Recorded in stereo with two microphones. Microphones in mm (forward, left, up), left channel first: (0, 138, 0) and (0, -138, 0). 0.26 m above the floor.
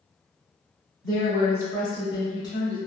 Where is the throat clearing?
I don't hear throat clearing.